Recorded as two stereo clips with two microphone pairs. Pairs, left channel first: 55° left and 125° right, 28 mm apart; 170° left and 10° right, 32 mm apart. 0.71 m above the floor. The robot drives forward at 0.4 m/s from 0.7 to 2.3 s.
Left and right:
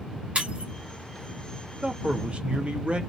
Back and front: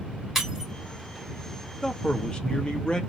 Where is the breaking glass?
85° right, 1.6 m.